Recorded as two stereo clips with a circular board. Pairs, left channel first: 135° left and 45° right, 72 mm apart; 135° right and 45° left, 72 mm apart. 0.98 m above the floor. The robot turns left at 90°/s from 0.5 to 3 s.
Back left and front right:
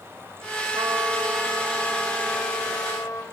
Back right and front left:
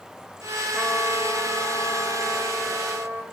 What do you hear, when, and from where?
0.7 s a trumpet: 60° right, 3.5 m; by 3.2 s 95° left, 3.5 m